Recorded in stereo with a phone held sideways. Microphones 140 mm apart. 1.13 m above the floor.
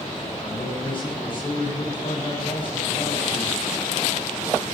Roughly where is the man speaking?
Left.